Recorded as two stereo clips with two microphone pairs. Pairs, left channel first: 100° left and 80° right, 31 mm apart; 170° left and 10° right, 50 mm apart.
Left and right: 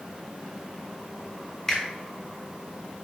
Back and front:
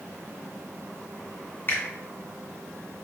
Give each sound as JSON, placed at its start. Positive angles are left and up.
{"t": 1.7, "sound": "a finger snap", "azimuth_deg": 180, "distance_m": 1.7}